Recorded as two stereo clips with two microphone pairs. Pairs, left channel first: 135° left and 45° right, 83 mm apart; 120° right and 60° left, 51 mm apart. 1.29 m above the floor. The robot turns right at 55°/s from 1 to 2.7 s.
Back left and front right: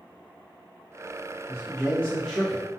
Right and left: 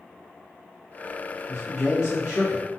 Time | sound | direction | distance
1.5 | a man speaking | 145° right | 0.8 m